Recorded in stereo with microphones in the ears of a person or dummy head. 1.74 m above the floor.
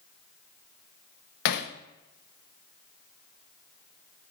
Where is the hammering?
65° left (ahead or behind), 1.2 m.